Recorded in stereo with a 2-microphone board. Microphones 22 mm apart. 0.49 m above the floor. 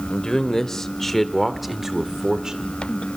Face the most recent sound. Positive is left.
turn(degrees=-45)  # may be behind; listen again after turning